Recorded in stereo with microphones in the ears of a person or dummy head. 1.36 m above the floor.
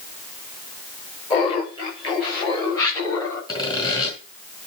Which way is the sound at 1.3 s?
35° left (ahead or behind).